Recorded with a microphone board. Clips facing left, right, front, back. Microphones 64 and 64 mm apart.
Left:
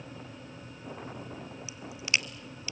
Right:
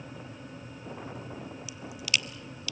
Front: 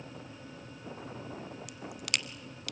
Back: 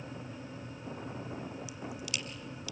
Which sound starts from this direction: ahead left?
A crack, at 1.7 s.